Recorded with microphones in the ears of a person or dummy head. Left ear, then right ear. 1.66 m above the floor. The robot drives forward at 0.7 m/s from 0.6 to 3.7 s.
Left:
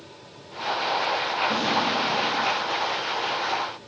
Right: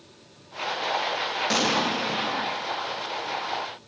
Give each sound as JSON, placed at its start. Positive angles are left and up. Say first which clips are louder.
{"t": 1.5, "sound": "an explosion", "louder": "even", "side_deg": -75, "distance_m": 0.7}